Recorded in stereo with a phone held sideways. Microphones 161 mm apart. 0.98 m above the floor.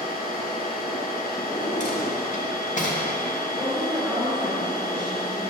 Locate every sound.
0.0 s a machine running: 70° left (ahead or behind), 1.1 m
1.4 s a drawer: 50° left (ahead or behind), 1.3 m
3.6 s a woman speaking: 5° left (ahead or behind), 2.5 m